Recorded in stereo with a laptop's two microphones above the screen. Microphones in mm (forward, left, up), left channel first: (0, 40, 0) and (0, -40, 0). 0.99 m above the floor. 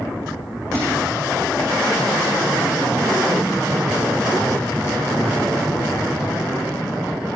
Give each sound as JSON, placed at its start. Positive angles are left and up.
{"t": 0.7, "sound": "a thud", "side_deg": -40, "distance_m": 10.0}